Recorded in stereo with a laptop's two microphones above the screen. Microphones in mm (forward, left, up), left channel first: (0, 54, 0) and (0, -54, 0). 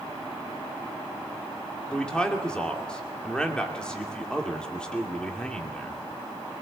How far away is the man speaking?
About 2.5 m.